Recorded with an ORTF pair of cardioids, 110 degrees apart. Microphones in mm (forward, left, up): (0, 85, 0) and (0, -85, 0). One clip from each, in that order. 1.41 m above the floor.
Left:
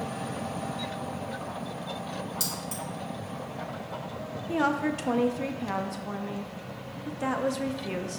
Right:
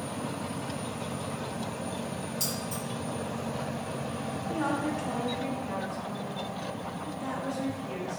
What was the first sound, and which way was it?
Keys jangling, 30° left.